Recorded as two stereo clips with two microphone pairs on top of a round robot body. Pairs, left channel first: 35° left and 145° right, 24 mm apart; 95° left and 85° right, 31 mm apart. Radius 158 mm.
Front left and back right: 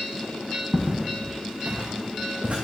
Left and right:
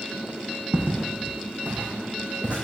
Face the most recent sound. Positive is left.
turn(degrees=-140)